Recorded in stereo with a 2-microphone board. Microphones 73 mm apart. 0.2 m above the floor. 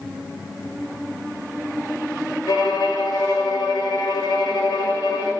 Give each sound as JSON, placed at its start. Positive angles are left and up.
{"t": 2.5, "sound": "a violin", "side_deg": 85, "distance_m": 0.5}